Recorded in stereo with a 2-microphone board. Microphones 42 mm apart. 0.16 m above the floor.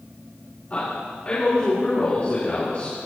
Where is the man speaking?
35° left (ahead or behind), 3.5 m.